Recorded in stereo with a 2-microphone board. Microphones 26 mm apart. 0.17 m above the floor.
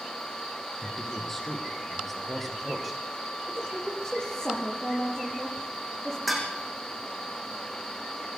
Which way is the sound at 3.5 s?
20° left (ahead or behind).